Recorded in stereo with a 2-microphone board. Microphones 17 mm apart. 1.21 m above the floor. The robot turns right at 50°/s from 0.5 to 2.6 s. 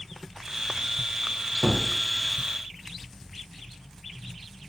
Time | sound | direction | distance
1.6 | a gunshot | 20° left (ahead or behind) | 0.9 m